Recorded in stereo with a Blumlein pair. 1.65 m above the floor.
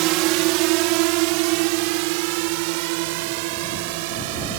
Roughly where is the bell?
No bell in this recording.